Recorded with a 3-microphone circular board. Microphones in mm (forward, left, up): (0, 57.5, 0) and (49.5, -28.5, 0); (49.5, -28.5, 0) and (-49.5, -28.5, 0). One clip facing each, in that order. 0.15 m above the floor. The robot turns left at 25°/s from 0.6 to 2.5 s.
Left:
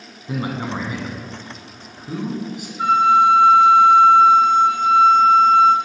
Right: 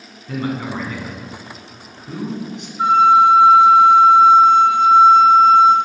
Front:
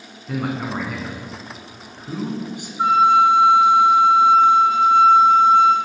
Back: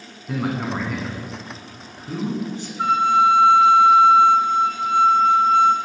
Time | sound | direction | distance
0.3 | a man speaking | 90° left | 1.3 m
2.8 | a flute | 45° right | 1.3 m